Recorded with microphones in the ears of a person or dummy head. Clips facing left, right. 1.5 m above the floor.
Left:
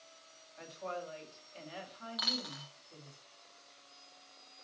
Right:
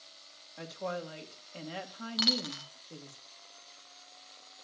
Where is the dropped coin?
35° right (ahead or behind), 1.7 m.